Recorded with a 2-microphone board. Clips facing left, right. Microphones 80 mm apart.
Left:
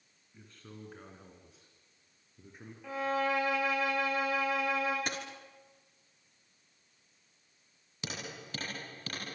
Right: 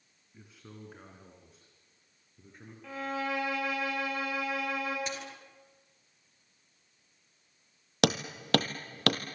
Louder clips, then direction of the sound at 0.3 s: Even; 10° right (ahead or behind).